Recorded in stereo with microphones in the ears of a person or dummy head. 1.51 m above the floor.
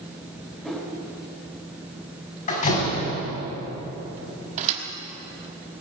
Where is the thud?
45° right (ahead or behind), 1.6 m.